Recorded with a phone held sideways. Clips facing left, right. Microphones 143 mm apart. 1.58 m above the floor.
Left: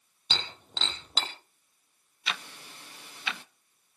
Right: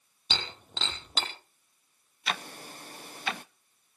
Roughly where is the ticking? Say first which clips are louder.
Right 4 dB; right.